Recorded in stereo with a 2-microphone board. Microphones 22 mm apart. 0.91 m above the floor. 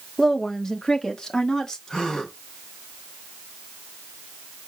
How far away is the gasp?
About 3 m.